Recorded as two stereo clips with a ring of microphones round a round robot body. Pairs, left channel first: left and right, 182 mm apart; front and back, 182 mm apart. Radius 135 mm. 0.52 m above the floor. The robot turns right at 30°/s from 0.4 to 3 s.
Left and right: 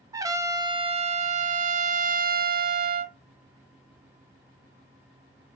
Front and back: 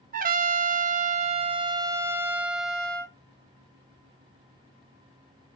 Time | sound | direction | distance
0.1 | a trumpet | 160° right | 0.6 m